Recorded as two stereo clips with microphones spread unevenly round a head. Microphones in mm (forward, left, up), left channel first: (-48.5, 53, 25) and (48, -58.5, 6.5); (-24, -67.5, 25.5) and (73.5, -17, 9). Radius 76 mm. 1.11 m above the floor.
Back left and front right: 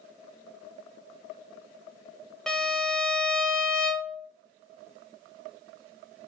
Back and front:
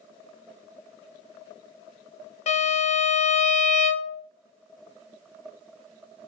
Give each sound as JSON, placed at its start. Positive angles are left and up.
{"t": 2.5, "sound": "a violin", "azimuth_deg": -140, "distance_m": 0.6}